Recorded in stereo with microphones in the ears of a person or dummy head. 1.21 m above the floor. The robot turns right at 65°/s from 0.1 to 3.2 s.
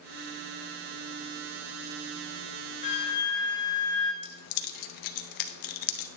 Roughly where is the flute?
Left.